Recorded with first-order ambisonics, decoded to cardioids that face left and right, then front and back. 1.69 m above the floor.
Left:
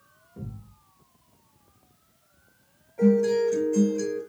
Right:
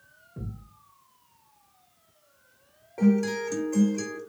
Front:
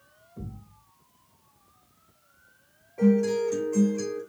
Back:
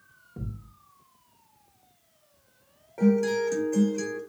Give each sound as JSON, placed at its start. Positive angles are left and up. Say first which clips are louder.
{"t": 0.4, "sound": "a thud", "louder": "even, back 1 dB", "azimuth_deg": -170, "distance_m": 2.0}
{"t": 3.0, "sound": "a guitar", "louder": "left 5 dB, even", "azimuth_deg": -130, "distance_m": 2.0}